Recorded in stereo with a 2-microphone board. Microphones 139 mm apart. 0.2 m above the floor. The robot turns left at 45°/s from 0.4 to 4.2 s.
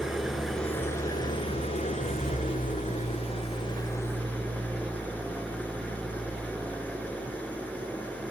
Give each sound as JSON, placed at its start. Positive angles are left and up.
{"t": 0.0, "sound": "an engine running", "azimuth_deg": 180, "distance_m": 0.9}